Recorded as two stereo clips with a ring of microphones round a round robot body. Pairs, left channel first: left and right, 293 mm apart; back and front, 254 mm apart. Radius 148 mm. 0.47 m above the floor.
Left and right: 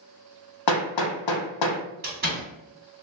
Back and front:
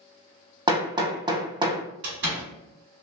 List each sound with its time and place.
0.7 s hammering: 75° left, 0.7 m
2.0 s a door slam: 40° right, 1.4 m